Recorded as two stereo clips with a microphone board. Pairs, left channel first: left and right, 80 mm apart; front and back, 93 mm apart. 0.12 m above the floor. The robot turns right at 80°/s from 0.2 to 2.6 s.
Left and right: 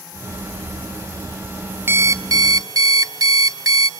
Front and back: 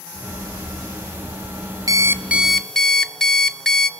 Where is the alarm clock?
140° right, 1.1 m; by 3.9 s 85° right, 1.1 m.